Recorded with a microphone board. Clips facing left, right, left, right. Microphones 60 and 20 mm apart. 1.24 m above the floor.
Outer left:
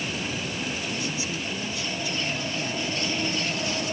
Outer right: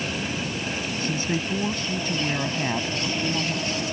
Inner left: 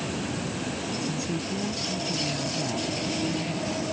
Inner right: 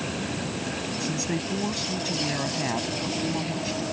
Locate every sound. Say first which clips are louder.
1.0 s a woman speaking: outer right 4 dB, inner right 2 dB; 50° right (ahead or behind)